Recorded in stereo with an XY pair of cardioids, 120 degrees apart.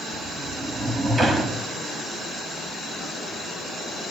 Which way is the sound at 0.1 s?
20° right.